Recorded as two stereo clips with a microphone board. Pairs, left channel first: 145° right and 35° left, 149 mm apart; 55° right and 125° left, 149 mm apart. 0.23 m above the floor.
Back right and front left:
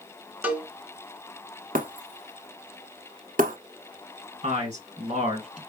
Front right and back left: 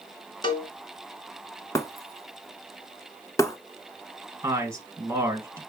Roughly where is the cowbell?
Ahead right.